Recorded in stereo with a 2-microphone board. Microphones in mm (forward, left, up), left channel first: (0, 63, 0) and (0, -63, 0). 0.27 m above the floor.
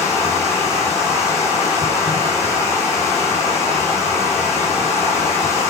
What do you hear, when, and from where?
0.0 s running water: 20° left (ahead or behind), 2.5 m